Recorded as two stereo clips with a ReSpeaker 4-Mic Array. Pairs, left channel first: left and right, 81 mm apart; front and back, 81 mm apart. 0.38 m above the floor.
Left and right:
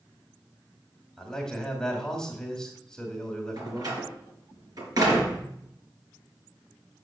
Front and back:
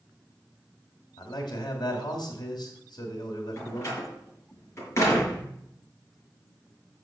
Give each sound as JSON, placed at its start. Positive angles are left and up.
{"t": 1.2, "sound": "a man speaking", "azimuth_deg": 10, "distance_m": 2.0}
{"t": 3.6, "sound": "a door slam", "azimuth_deg": -55, "distance_m": 4.0}